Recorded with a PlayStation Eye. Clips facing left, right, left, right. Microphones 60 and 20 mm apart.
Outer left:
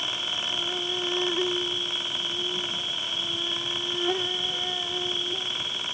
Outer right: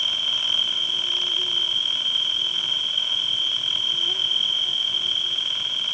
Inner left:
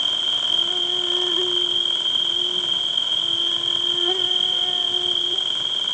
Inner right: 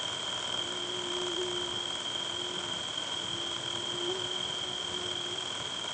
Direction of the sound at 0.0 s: 65° left (ahead or behind).